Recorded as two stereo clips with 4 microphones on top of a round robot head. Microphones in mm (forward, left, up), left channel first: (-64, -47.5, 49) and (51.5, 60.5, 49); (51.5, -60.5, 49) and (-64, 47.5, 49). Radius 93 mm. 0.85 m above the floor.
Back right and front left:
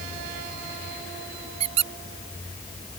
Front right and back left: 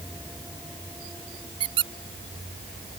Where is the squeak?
85° left.